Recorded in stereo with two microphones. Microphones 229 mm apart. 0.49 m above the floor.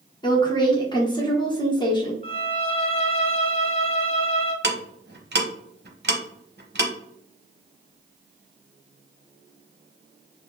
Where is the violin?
25° left (ahead or behind), 0.8 m.